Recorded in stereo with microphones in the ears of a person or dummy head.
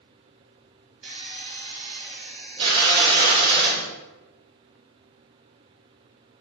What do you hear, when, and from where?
1.0 s a drill: 35° right (ahead or behind), 1.7 m